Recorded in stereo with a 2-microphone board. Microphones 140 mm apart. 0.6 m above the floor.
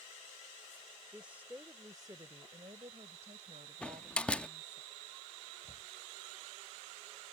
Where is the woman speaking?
5° right (ahead or behind); by 4.8 s 70° right (ahead or behind).